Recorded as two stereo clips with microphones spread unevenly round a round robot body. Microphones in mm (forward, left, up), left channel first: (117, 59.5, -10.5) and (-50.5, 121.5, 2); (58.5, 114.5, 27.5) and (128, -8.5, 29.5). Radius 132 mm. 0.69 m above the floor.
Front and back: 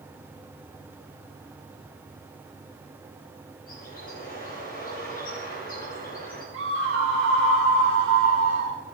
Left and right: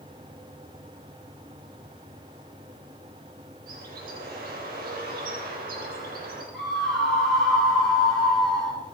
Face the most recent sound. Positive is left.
turn(degrees=-150)